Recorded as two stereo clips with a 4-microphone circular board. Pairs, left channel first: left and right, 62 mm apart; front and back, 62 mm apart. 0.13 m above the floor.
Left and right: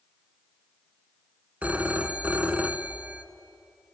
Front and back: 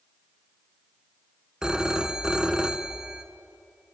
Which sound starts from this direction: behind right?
A phone ringing, at 1.6 s.